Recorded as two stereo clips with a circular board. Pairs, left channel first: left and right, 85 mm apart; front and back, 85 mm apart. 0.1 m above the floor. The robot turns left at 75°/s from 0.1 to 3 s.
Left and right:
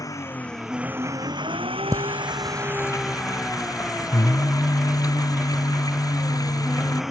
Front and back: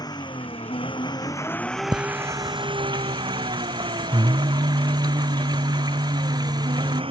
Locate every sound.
0.0 s an engine running: 40° left; by 7.1 s 175° right
1.9 s singing: 140° right; by 7.0 s 140° left